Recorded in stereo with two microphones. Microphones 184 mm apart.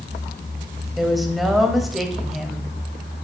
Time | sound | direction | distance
1.0 | a woman speaking | centre (ahead or behind) | 1.8 m